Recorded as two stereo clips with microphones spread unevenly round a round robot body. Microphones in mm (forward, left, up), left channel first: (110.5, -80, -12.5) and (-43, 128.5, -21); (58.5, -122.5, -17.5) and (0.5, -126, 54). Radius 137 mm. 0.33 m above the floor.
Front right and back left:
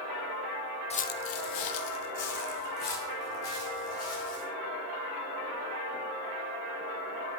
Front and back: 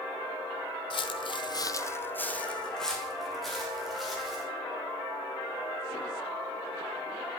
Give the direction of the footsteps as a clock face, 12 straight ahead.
12 o'clock.